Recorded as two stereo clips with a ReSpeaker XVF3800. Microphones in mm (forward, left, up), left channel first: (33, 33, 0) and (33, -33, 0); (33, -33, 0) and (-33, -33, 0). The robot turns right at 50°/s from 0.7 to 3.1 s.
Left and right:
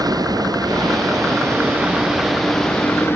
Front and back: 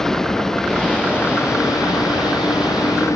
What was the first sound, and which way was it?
A vehicle, 85° right.